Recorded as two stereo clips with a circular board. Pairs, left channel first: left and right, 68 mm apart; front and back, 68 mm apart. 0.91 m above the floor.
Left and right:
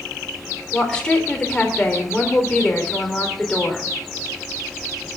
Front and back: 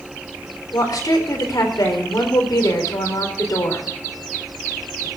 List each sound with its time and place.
0.7 s a woman speaking: 15° left, 3.5 m